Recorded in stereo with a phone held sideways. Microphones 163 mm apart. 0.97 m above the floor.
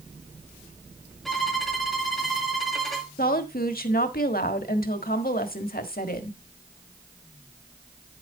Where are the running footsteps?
I don't hear running footsteps.